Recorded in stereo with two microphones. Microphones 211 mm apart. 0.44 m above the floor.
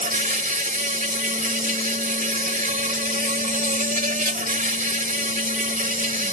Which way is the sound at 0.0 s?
40° right (ahead or behind).